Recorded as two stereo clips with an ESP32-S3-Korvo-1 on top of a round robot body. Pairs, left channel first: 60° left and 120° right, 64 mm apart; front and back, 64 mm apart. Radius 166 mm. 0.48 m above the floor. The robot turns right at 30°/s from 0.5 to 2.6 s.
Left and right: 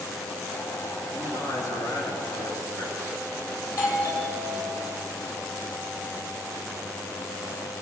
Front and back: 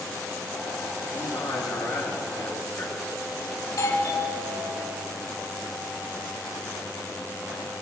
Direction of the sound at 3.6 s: 20° left.